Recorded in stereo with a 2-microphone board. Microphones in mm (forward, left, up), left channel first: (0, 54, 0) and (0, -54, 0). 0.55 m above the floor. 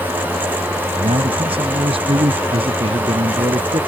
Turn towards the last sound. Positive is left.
turn(degrees=-55)  # may be behind; listen again after turning